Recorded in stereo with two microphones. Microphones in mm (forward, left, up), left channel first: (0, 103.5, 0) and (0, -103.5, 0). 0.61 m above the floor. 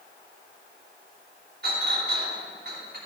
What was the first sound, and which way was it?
A clink, 50° right (ahead or behind).